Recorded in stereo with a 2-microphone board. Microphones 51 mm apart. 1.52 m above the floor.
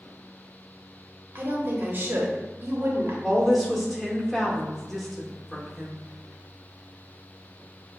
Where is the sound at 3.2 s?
Centre (ahead or behind), 1.0 m.